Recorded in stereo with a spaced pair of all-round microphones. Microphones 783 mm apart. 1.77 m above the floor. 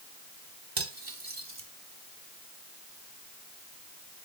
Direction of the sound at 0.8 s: 40° right (ahead or behind).